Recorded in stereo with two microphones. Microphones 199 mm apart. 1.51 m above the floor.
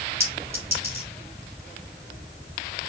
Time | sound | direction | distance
0.2 | a clink | 15° right (ahead or behind) | 3 m